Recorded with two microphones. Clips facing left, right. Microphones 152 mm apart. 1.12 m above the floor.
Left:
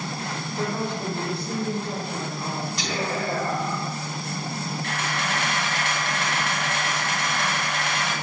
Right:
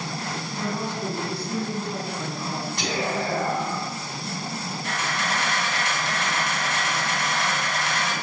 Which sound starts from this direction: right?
Whispering, at 2.8 s.